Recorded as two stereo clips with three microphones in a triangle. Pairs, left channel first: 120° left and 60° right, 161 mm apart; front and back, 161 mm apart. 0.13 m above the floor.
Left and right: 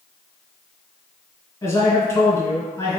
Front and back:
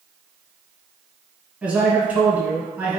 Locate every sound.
1.6 s a man speaking: 120° left, 1.5 m